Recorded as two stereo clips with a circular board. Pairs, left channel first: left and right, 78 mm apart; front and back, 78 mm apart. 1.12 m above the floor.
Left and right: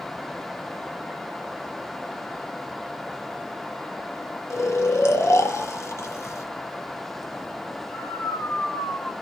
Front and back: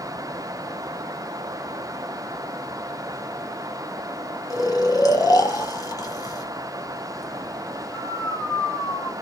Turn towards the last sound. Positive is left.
turn(degrees=40)